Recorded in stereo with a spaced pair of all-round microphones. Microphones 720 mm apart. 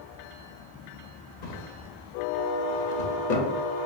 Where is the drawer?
80° left, 0.8 m.